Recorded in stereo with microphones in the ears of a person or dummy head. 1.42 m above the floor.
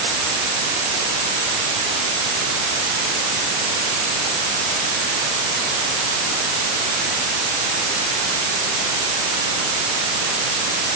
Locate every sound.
Only background noise.